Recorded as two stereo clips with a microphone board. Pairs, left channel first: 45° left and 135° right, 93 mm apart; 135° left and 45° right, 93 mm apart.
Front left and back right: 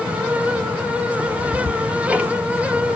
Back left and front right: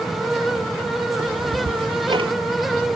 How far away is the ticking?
About 0.6 m.